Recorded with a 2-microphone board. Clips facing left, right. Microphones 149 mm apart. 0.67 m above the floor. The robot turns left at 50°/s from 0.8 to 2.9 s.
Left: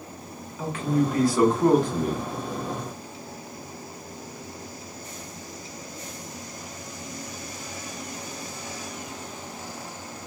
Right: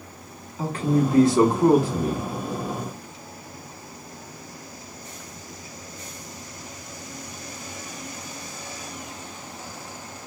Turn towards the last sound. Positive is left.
turn(degrees=140)